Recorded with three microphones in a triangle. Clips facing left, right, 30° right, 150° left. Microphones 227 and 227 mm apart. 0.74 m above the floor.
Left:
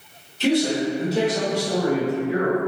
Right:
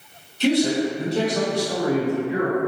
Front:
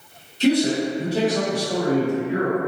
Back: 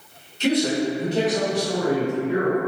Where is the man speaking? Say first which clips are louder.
Right 1 dB, front 2 dB; straight ahead, 1.4 m; by 2.6 s 170° left, 1.6 m.